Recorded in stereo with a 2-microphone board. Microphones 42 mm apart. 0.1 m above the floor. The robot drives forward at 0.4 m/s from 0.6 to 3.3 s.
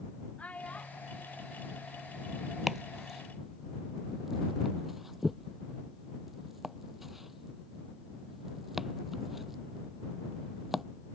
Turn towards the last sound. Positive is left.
turn(degrees=-5)  # may be behind; listen again after turning